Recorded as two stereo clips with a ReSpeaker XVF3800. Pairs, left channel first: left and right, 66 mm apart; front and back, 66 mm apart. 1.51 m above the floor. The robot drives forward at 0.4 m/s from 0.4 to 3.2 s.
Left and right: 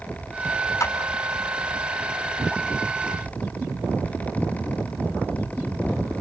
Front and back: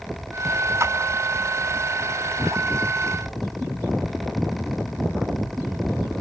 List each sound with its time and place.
0.8 s a clap: 135° left, 5 m; by 0.9 s 140° left, 5 m